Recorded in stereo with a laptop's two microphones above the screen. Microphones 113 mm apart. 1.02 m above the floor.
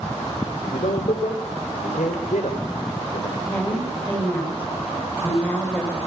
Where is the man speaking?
85° left, 3.5 m.